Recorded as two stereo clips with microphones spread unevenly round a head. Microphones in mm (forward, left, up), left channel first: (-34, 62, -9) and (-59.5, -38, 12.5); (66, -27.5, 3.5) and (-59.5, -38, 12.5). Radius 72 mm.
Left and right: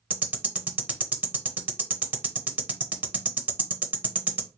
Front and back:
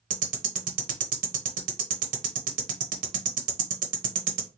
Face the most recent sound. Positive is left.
turn(degrees=-175)